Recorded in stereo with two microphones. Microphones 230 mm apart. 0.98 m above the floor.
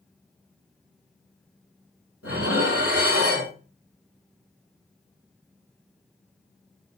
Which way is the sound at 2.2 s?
70° left (ahead or behind).